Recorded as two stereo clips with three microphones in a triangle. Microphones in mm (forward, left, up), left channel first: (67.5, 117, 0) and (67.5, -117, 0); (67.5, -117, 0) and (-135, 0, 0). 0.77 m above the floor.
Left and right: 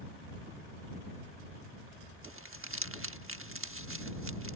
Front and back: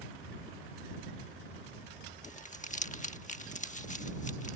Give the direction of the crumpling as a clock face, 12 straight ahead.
3 o'clock.